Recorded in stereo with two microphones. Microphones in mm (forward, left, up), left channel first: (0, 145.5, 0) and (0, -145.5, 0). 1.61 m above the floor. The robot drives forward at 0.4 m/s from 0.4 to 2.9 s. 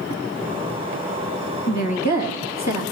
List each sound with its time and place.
1.7 s a woman speaking: 70° left (ahead or behind), 2 m; by 2.8 s 60° left (ahead or behind), 2.5 m